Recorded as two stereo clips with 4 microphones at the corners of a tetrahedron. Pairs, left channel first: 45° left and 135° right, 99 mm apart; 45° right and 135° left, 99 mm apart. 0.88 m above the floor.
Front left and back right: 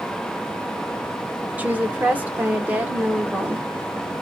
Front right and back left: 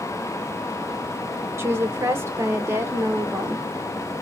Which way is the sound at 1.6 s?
165° left.